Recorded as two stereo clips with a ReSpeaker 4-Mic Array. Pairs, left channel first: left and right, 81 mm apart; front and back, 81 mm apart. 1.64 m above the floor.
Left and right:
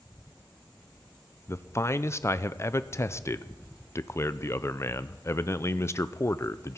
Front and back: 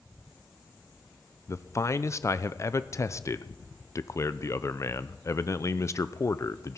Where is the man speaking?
40° left, 0.6 m.